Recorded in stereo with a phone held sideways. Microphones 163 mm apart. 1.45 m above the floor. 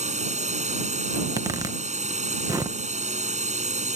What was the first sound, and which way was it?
A drone, 45° right (ahead or behind).